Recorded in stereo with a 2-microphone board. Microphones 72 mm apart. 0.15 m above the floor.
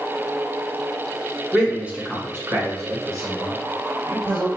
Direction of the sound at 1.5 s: 10° right (ahead or behind).